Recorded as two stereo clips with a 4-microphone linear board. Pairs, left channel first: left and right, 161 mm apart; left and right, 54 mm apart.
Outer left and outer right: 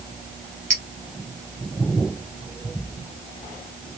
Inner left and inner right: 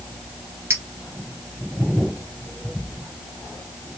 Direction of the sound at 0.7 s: 50° right (ahead or behind).